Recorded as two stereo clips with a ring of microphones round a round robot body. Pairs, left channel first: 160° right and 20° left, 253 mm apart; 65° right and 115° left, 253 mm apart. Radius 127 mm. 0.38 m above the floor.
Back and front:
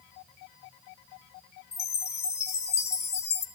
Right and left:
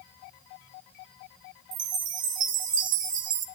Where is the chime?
145° left, 1.5 m.